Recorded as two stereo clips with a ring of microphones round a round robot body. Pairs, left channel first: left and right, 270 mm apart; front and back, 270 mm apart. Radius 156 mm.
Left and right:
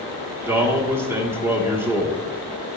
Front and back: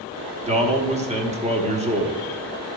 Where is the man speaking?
160° right, 1.0 m.